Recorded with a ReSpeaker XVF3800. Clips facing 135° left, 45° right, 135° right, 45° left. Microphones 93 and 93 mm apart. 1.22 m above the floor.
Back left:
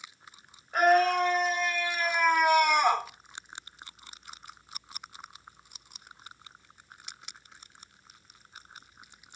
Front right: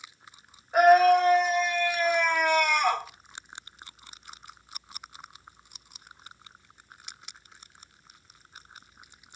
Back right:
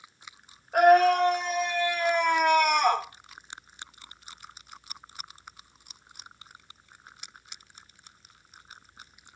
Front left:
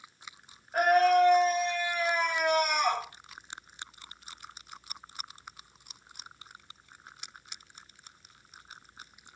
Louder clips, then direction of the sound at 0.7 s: Front right 5 dB, back right 4 dB; 125° right.